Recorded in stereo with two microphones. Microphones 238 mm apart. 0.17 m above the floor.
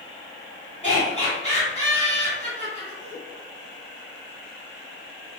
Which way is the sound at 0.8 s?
30° left (ahead or behind).